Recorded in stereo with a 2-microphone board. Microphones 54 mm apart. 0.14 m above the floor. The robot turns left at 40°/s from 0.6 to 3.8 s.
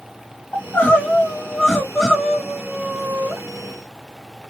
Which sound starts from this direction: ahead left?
Crying, at 0.5 s.